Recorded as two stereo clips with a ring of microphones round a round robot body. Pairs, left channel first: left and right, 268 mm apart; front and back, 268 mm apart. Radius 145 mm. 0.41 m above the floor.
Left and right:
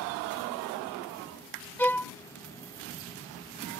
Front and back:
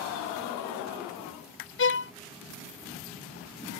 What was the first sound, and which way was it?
A violin, 5° left.